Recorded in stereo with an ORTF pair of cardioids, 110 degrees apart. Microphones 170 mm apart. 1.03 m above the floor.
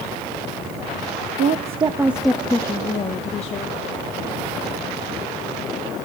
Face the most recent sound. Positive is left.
turn(degrees=40)